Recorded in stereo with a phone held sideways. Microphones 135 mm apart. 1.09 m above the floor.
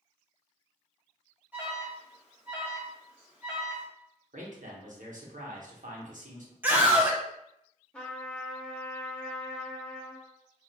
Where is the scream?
15° right (ahead or behind), 0.5 m.